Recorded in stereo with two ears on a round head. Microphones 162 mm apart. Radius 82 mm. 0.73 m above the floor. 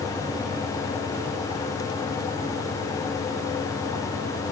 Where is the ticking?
No ticking in this recording.